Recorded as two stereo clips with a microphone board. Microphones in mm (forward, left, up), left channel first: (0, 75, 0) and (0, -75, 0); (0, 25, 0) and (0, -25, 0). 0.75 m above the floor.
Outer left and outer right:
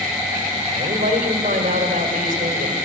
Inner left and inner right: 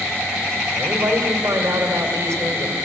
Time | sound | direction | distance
0.8 | a man speaking | 60° right (ahead or behind) | 3 m